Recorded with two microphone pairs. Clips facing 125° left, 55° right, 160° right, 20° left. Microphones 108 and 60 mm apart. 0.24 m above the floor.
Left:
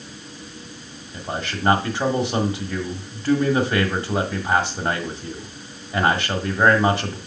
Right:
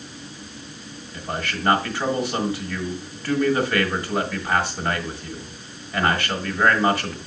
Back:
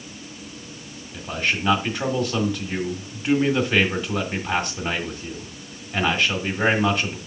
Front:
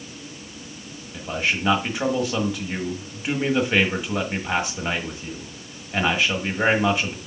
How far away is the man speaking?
About 1.6 m.